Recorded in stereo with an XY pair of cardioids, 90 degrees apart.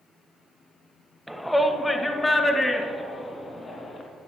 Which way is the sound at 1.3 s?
Straight ahead.